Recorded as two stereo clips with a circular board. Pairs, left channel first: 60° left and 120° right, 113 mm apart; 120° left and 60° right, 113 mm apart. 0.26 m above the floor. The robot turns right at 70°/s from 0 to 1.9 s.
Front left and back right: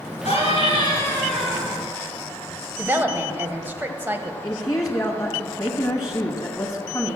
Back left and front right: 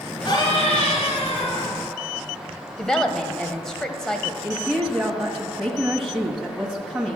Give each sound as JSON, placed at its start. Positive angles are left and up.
{"t": 0.2, "sound": "a scream", "azimuth_deg": 70, "distance_m": 3.5}
{"t": 2.8, "sound": "a woman speaking", "azimuth_deg": -160, "distance_m": 1.0}
{"t": 4.4, "sound": "a woman speaking", "azimuth_deg": 25, "distance_m": 1.3}